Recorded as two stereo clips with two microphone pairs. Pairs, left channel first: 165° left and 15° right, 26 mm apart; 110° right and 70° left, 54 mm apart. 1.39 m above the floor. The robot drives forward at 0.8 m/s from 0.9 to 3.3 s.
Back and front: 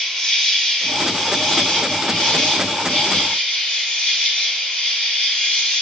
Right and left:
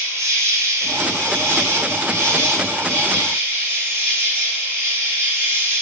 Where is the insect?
90° left, 5 m; by 5.8 s 110° left, 5 m.